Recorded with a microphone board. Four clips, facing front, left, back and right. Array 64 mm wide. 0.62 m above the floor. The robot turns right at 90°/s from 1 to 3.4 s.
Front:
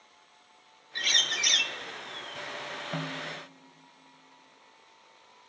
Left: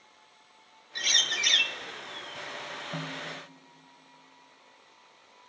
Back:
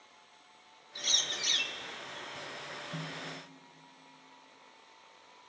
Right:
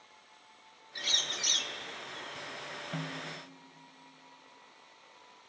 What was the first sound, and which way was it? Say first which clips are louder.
A bird: left 7 dB, front 8 dB; 20° left.